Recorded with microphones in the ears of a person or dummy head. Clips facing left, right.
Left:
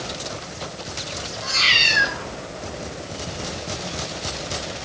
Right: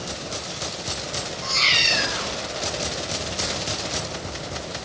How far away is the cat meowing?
About 3 m.